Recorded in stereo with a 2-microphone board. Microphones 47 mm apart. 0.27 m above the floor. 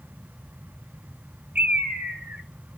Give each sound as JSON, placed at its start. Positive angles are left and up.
{"t": 1.6, "sound": "a bird", "side_deg": -35, "distance_m": 1.1}